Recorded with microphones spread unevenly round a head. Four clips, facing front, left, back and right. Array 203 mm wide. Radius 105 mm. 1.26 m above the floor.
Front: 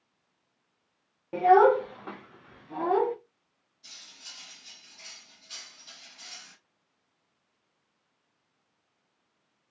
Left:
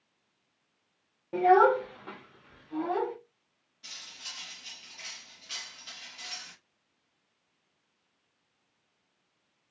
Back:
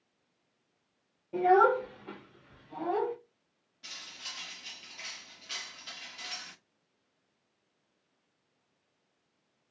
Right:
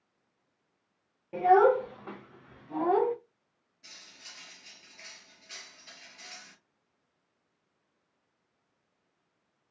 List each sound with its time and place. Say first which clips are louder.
1.3 s a child speaking: even, front 4 dB; 30° left, 0.9 m; by 3.1 s 35° right, 1.0 m
3.8 s cutlery clinking: left 4 dB, back 6 dB; 170° left, 0.6 m